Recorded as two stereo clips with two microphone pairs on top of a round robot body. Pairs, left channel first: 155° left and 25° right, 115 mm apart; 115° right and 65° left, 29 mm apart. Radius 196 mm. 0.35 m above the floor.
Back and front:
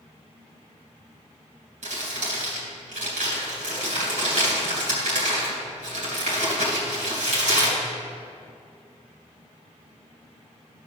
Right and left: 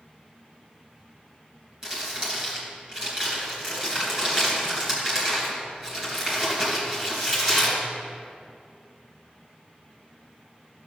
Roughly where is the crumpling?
Ahead.